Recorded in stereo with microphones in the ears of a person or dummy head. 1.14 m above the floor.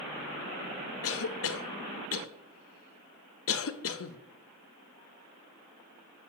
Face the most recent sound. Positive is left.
turn(degrees=60)  # may be behind; listen again after turning